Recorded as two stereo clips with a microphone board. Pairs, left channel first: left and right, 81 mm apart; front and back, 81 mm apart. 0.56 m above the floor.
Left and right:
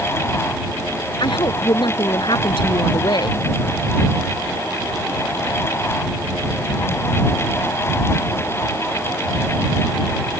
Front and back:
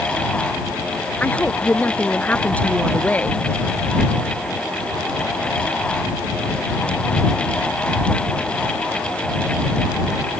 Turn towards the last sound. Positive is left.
turn(degrees=70)